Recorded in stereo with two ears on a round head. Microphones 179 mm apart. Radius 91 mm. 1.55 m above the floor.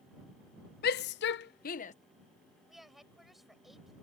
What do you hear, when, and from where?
0.8 s a shout: 50° left (ahead or behind); by 1.9 s 40° left (ahead or behind)
2.7 s a woman speaking: centre (ahead or behind)